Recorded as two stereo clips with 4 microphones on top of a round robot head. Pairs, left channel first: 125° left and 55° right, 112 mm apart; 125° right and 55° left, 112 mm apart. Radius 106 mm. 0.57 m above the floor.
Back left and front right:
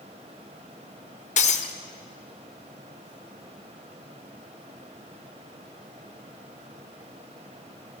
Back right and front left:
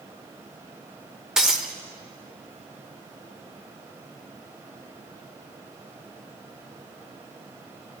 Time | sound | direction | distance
1.4 | breaking glass | 140° left | 1.3 m